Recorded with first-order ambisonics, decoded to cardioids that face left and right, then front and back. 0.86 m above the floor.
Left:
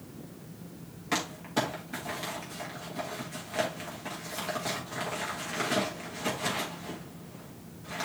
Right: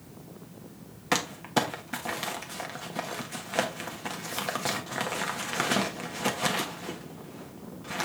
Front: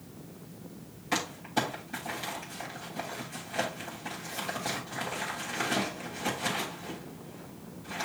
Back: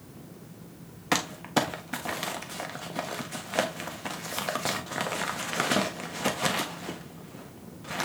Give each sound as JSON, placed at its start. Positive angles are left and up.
{"t": 1.1, "sound": "crumpling", "azimuth_deg": -145, "distance_m": 1.3}